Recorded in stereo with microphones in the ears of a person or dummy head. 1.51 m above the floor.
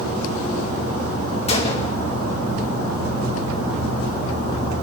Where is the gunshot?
25° left (ahead or behind), 1.0 m.